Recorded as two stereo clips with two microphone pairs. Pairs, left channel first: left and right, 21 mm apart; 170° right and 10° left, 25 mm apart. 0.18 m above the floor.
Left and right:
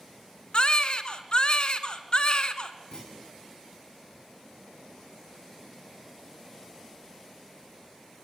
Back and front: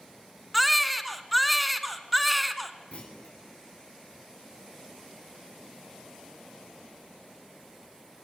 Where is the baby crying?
100° left, 1.2 m.